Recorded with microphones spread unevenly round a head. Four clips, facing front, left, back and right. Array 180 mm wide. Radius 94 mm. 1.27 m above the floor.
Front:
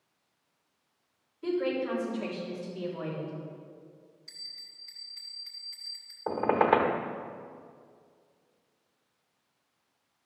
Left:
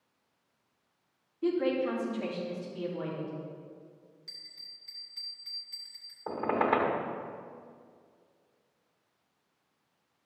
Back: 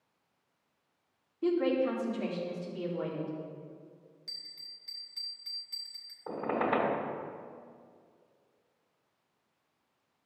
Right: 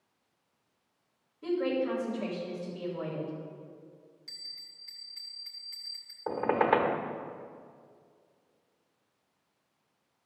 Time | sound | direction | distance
1.4 | a woman speaking | 160° left | 4.5 m
4.3 | a bell | 170° right | 1.2 m
6.3 | a squeak | 5° right | 1.2 m